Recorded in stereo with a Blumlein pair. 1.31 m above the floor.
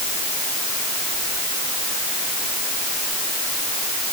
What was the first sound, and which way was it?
Only background noise.